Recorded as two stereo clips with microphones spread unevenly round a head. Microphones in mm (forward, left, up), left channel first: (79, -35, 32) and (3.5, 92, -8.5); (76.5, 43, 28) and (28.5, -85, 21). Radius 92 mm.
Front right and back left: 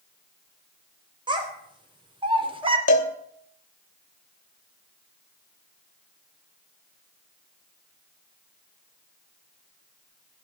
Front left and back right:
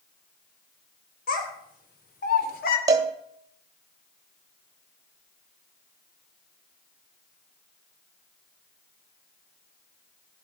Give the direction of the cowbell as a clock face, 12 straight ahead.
2 o'clock.